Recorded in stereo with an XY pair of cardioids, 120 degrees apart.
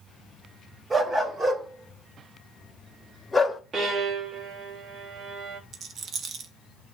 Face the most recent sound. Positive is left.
turn(degrees=-50)